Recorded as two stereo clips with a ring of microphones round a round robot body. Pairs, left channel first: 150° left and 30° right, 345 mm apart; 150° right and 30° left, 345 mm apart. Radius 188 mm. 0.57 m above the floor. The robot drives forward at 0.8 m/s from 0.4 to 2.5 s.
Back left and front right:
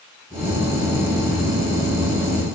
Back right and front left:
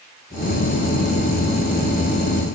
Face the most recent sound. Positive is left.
No sound to turn to.